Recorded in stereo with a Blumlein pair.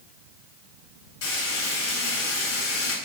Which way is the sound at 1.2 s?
55° left.